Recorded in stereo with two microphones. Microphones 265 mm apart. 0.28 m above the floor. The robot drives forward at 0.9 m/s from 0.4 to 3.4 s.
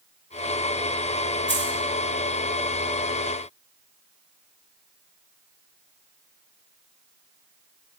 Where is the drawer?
I don't hear a drawer.